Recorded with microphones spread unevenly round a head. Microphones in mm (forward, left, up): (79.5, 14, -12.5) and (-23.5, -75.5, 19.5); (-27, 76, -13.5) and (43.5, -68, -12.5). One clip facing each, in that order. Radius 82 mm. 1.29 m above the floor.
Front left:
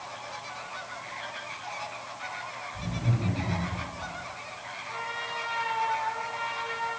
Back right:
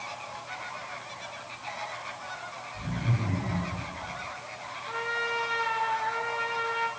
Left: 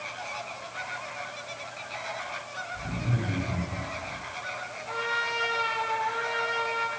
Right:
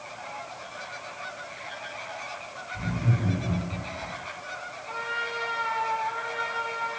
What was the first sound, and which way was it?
Laughter, 25° right.